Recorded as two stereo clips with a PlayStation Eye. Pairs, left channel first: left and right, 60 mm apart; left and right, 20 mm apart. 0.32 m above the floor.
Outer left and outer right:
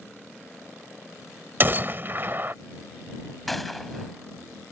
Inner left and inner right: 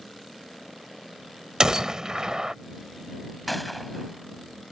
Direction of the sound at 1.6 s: 40° right (ahead or behind).